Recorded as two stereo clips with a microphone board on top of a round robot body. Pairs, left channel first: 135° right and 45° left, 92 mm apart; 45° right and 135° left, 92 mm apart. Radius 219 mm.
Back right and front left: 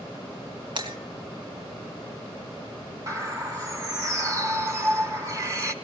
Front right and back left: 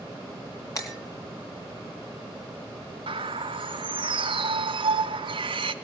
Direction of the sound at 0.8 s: 10° left.